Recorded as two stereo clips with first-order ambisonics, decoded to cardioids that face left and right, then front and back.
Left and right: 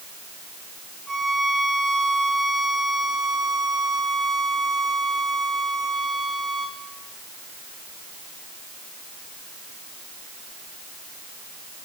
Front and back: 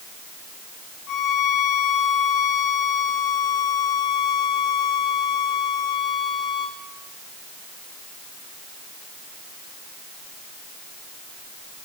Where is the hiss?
I don't hear a hiss.